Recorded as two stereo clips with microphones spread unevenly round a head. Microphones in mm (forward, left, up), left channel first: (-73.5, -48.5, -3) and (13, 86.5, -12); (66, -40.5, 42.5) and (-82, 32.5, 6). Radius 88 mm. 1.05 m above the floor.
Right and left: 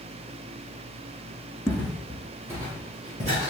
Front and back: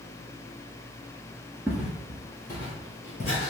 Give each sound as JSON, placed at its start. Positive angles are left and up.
{"t": 1.7, "sound": "footsteps", "azimuth_deg": -115, "distance_m": 1.0}